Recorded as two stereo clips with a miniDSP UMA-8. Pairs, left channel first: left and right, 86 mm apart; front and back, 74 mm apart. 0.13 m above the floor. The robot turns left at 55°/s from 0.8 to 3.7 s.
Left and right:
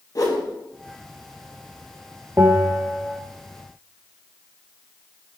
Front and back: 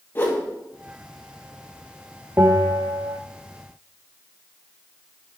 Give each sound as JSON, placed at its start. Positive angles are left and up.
{"t": 0.1, "sound": "a whoosh", "azimuth_deg": 55, "distance_m": 3.5}
{"t": 2.4, "sound": "a bell", "azimuth_deg": -140, "distance_m": 1.9}